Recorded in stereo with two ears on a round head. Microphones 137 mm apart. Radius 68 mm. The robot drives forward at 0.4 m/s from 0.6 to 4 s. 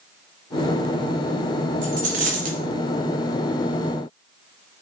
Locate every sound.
1.8 s a dropped coin: 50° right (ahead or behind), 2.5 m; by 2.6 s 55° right (ahead or behind), 2.5 m